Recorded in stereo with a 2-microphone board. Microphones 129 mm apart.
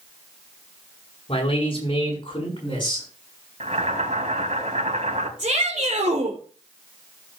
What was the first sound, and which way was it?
A man speaking, 45° left (ahead or behind).